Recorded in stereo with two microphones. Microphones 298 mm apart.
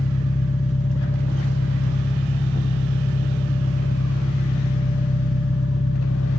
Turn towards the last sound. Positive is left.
turn(degrees=25)  # may be behind; listen again after turning